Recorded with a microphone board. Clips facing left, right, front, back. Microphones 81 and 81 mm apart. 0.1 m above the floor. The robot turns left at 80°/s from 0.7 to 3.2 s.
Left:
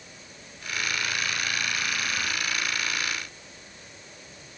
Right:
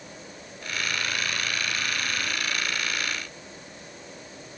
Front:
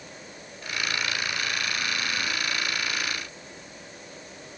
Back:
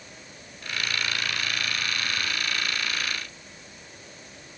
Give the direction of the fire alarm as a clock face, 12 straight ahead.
I don't hear a fire alarm.